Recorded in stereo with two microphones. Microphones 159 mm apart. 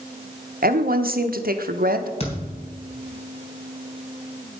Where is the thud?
40° left (ahead or behind), 3 m.